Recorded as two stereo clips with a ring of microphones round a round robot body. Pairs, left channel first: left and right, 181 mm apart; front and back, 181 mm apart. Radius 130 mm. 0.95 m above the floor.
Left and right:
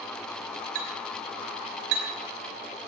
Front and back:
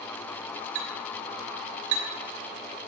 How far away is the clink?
About 2.5 m.